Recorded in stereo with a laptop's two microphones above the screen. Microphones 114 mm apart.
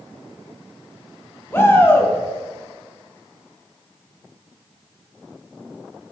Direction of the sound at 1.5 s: 20° left (ahead or behind).